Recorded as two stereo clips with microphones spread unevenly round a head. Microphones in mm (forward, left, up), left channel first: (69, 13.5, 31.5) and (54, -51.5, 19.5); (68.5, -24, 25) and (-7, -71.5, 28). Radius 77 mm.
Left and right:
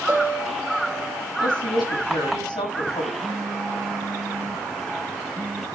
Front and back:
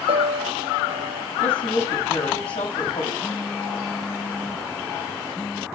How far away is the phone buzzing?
About 2 m.